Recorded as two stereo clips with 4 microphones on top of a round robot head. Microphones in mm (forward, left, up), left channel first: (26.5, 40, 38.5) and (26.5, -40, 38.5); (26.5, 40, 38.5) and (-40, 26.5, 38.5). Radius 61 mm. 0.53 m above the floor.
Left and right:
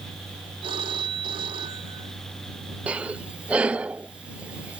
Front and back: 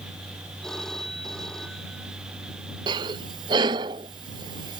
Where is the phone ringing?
75° right.